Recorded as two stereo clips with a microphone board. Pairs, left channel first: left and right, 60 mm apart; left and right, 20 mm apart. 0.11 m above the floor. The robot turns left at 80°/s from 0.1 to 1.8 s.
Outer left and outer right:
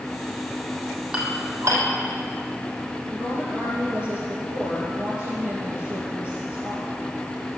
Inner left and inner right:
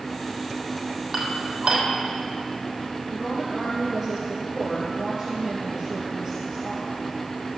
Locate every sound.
1.1 s dishes clattering: 10° right (ahead or behind), 2.5 m; by 1.8 s 60° right (ahead or behind), 2.5 m
3.1 s a woman speaking: 25° right (ahead or behind), 2.5 m